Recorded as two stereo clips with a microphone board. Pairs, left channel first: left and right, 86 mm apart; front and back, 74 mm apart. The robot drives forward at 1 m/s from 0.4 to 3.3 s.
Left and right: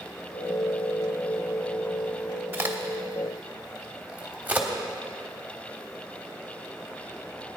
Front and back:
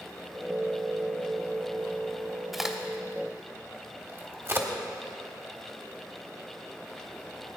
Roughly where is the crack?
Right.